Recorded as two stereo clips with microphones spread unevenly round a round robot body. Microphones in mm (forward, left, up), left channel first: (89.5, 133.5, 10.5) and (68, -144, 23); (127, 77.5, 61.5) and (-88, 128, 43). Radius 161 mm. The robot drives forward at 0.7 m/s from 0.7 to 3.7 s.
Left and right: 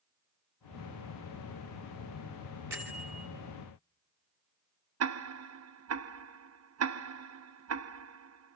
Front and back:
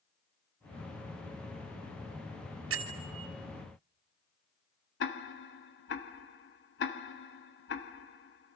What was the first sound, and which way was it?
A bell, 175° right.